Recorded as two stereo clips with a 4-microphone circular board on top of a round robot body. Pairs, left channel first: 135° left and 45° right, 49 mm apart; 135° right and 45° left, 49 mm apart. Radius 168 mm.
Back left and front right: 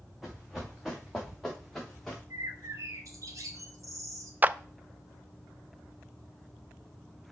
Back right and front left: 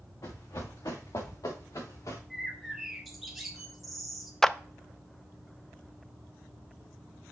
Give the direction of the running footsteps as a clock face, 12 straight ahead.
4 o'clock.